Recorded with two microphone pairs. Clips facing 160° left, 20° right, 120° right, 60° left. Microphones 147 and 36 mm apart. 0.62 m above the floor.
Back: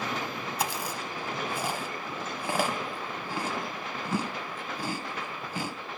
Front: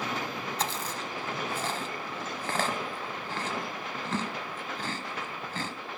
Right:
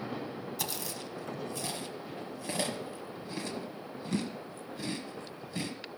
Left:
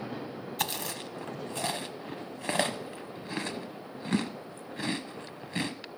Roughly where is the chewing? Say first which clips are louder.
Back 3 dB, left 8 dB; left.